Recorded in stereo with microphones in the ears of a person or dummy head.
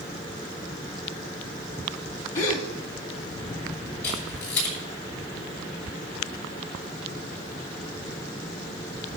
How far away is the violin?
I don't hear a violin.